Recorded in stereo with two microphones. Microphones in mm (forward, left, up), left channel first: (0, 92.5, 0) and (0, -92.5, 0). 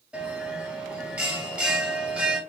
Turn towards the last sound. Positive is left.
turn(degrees=-5)  # may be behind; listen again after turning